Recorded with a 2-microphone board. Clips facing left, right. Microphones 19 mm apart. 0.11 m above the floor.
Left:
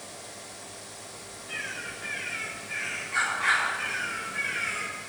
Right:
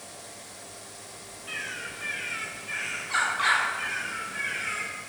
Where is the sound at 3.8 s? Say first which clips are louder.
Even; 5° left (ahead or behind), 3.5 m.